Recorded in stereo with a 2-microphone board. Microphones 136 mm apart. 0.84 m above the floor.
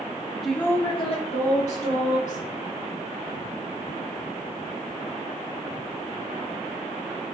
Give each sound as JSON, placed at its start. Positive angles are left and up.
{"t": 0.4, "sound": "a woman speaking", "side_deg": 0, "distance_m": 0.5}